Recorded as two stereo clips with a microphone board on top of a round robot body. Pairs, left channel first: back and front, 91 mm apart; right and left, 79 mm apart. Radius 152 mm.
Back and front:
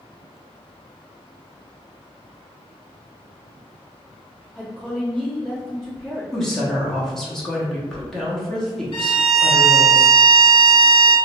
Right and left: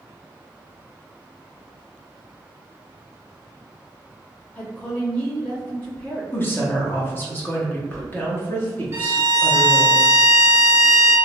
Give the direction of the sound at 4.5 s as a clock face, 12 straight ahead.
4 o'clock.